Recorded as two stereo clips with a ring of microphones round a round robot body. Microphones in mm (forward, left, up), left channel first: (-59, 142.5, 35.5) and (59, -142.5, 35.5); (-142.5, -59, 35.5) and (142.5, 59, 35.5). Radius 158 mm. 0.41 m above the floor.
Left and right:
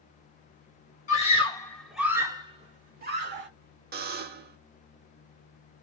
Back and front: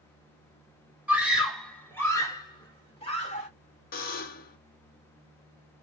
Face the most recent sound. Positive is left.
turn(degrees=-110)